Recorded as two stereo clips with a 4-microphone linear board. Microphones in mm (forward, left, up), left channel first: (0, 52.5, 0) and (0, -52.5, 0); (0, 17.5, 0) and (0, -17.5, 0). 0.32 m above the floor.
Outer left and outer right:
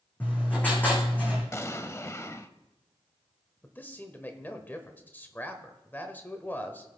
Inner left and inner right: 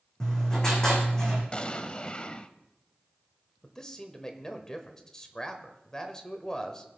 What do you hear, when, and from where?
0.2 s writing: 15° left (ahead or behind), 4 m
1.5 s an explosion: 30° left (ahead or behind), 0.6 m
3.6 s a man speaking: 20° left (ahead or behind), 1.0 m